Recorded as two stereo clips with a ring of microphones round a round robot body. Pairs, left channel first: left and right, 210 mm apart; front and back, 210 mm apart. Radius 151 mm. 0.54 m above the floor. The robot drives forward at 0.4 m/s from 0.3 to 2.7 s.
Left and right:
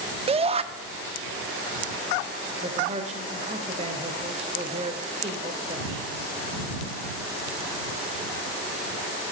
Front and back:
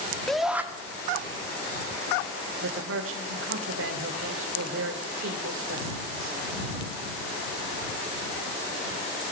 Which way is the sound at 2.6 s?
155° right.